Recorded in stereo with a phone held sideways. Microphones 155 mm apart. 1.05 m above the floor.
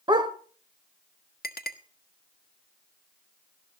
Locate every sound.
0.1 s a dog barking: 30° right (ahead or behind), 1.3 m
1.4 s a clink: 85° left, 1.3 m